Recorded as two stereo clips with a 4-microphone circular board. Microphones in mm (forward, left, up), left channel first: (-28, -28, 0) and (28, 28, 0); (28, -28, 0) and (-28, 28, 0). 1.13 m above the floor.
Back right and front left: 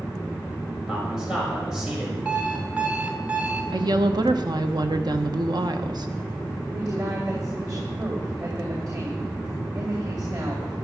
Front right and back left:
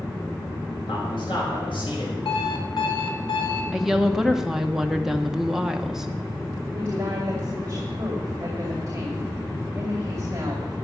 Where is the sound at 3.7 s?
50° left, 1.1 m.